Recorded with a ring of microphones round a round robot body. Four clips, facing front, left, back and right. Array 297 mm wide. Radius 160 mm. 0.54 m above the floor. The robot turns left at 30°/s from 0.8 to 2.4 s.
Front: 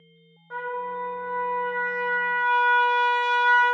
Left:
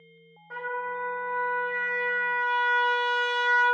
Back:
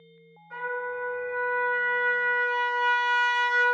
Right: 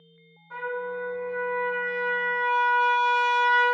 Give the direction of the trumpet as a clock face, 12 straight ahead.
11 o'clock.